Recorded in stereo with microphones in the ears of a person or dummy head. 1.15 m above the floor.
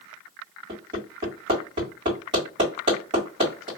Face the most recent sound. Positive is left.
turn(degrees=-35)  # may be behind; listen again after turning